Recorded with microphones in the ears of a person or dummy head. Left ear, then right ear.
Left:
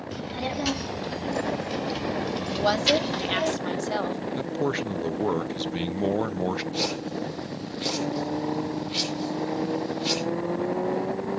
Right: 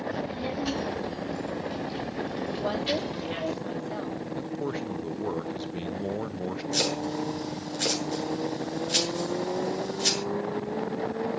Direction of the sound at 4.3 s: 30° left (ahead or behind).